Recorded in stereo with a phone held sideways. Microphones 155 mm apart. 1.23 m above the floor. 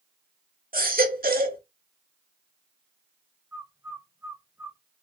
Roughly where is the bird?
Centre.